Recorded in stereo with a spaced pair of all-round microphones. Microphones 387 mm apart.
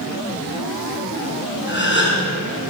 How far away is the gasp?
About 7.5 m.